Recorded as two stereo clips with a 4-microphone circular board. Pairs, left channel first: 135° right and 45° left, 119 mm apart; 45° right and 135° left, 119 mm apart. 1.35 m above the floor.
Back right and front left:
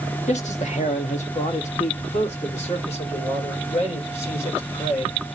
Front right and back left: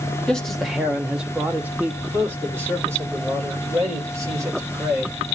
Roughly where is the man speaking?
Behind right.